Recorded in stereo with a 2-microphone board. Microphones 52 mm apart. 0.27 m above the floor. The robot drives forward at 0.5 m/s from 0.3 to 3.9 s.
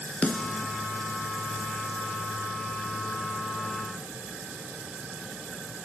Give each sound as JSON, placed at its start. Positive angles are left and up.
{"t": 0.2, "sound": "a snare drum", "side_deg": 20, "distance_m": 2.5}